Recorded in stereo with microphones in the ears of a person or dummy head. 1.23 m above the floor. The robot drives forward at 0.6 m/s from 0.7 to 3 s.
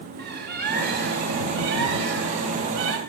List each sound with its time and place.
0.2 s a bird: 55° right (ahead or behind), 3.5 m; by 3.0 s 75° right (ahead or behind), 3 m